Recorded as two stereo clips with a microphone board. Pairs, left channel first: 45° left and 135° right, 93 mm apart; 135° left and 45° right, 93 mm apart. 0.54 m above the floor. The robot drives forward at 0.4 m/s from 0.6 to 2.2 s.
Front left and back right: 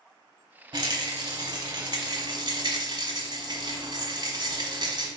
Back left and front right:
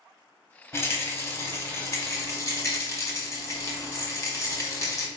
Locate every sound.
0.7 s a rattle: 165° right, 0.8 m; by 5.1 s 170° right, 1.4 m